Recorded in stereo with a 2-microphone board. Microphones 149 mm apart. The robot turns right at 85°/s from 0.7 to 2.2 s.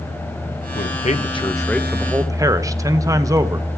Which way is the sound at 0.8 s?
85° left.